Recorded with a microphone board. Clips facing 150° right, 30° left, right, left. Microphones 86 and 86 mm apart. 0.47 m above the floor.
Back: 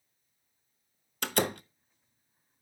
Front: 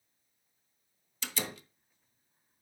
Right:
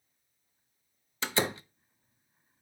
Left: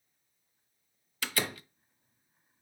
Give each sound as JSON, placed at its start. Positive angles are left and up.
{"t": 1.2, "sound": "a door slam", "azimuth_deg": -145, "distance_m": 0.6}